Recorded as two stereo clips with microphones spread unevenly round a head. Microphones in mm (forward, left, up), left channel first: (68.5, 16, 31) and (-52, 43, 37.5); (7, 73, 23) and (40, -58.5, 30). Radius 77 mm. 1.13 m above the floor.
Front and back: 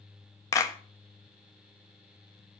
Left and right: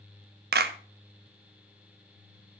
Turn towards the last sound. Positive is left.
turn(degrees=-80)